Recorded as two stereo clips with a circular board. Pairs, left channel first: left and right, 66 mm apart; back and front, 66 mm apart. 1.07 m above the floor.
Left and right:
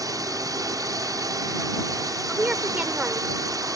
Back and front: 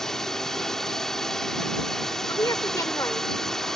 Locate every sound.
0.0 s a drone: 100° right
2.3 s a woman speaking: 160° right